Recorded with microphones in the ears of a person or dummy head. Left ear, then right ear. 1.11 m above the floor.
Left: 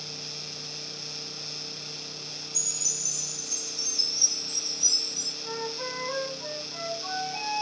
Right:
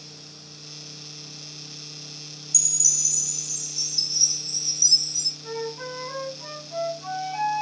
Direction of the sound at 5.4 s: 70° right (ahead or behind).